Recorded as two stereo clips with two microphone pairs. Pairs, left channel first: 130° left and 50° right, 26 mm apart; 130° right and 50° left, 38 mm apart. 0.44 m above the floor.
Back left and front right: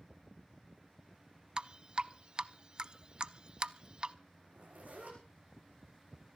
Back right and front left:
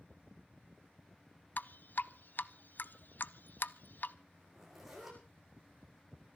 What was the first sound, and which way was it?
Dripping, 100° right.